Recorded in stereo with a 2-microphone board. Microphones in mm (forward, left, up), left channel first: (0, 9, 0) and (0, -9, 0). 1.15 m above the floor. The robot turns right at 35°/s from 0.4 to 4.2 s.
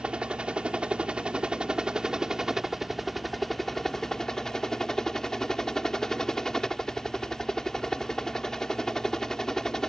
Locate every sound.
0.0 s a helicopter: 105° right; by 9.9 s 30° left